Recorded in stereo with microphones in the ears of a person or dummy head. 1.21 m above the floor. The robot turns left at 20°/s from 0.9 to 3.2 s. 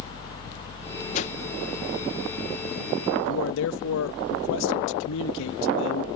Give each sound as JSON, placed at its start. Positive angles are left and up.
{"t": 1.1, "sound": "a whoosh", "side_deg": 45}
{"t": 3.2, "sound": "a man speaking", "side_deg": 70}